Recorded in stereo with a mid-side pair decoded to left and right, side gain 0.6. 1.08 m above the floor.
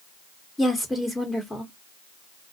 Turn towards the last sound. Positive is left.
turn(degrees=10)